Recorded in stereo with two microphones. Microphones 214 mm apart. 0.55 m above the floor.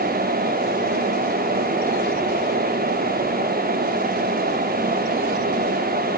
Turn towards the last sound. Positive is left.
No sound to turn to.